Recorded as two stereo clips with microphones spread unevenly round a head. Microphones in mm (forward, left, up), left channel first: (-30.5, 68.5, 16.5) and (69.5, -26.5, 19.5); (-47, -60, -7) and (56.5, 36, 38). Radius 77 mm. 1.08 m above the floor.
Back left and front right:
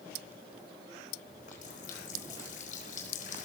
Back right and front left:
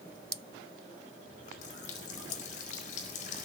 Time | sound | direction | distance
1.3 | a running tap | straight behind | 4 m